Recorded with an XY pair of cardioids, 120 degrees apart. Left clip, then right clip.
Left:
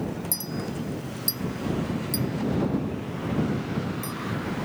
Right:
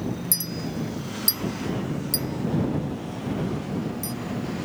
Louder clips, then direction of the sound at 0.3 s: Right 2 dB; 30° right.